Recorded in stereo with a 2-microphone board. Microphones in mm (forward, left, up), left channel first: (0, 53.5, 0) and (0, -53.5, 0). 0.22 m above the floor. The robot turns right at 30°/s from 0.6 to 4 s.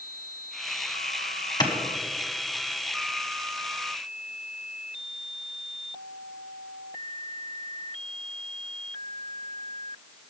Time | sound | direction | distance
1.6 | a clap | 45° left (ahead or behind) | 1.5 m